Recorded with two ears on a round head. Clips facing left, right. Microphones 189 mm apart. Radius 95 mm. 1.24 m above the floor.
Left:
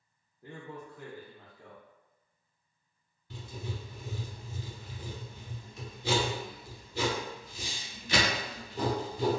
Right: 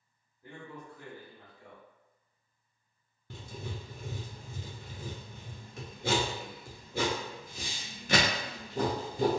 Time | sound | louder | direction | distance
0.4 | a man speaking | left 2 dB | 55° left (ahead or behind) | 0.8 m
3.3 | writing | left 1 dB | 45° right (ahead or behind) | 0.6 m